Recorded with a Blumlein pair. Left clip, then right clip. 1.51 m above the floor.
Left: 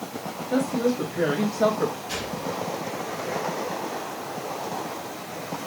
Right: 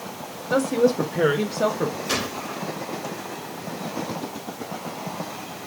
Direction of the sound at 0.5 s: 25° right.